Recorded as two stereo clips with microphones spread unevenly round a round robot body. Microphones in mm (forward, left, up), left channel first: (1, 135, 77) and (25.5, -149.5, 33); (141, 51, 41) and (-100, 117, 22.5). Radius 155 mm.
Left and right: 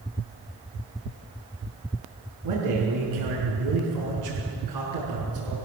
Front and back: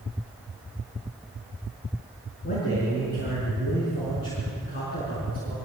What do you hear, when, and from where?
2.4 s a man speaking: 80° right, 6 m